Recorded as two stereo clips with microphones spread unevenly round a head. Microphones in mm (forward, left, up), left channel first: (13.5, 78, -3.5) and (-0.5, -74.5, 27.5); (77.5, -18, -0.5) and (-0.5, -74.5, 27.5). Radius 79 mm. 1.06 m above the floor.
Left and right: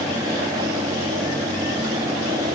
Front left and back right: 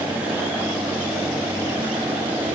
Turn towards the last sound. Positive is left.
No sound to turn to.